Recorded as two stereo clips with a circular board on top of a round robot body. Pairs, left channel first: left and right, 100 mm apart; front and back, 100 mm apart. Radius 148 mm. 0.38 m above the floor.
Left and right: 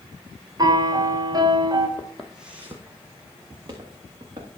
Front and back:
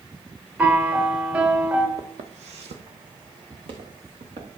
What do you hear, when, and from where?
0.6 s a piano: 110° right, 1.6 m
2.0 s footsteps: 160° left, 0.7 m; by 4.5 s 145° right, 3 m